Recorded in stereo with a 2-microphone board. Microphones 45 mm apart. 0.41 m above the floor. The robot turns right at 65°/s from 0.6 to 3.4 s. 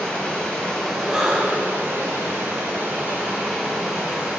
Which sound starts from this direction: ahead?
Breathing, at 1.1 s.